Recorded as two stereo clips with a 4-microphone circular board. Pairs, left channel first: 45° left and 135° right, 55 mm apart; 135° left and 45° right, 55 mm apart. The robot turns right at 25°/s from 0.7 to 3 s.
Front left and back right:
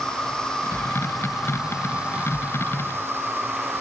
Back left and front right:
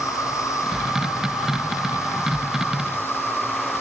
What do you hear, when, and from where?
0.0 s an insect: 120° left, 2.0 m; by 3.8 s straight behind, 2.0 m